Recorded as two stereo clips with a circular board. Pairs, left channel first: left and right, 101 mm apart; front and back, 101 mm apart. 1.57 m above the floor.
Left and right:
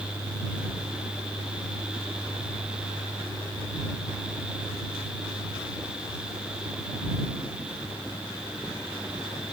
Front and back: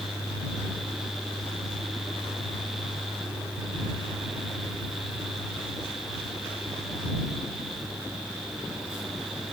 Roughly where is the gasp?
I don't hear a gasp.